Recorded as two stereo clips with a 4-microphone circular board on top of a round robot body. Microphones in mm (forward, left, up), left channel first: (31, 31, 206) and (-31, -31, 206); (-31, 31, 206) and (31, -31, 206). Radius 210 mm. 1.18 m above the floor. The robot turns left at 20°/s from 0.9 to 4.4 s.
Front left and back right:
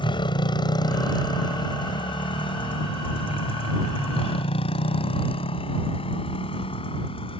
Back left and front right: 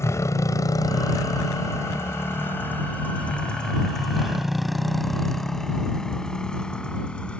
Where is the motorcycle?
75° left; by 7.4 s 55° left.